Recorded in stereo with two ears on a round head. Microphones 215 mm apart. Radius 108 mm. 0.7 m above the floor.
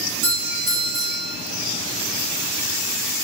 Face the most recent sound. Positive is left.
turn(degrees=-65)  # may be behind; listen again after turning